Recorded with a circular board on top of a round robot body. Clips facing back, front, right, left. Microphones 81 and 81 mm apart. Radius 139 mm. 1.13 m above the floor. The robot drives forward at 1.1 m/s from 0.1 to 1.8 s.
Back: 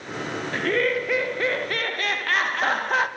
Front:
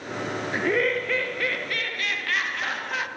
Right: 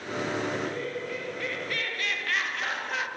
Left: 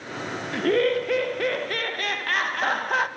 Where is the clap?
No clap in this recording.